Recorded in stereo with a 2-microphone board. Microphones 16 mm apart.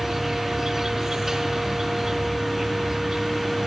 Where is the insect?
20° right (ahead or behind), 4 m.